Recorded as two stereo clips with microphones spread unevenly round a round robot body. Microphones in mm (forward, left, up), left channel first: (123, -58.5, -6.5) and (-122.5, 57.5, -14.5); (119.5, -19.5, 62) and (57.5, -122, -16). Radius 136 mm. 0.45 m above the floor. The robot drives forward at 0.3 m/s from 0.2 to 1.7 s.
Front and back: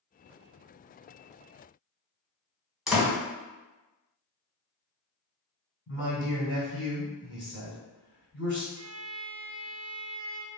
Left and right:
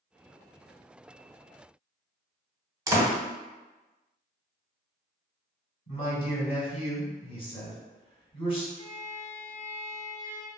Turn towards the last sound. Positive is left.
turn(degrees=-175)